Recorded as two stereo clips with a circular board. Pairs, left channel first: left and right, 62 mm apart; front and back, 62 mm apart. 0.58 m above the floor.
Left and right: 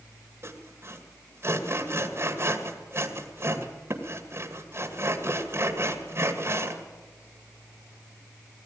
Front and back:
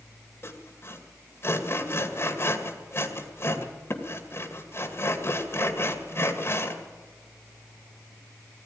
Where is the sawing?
45° right, 2.0 m.